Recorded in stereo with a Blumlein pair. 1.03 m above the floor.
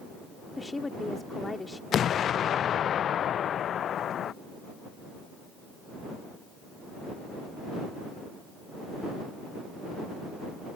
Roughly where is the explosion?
Ahead left.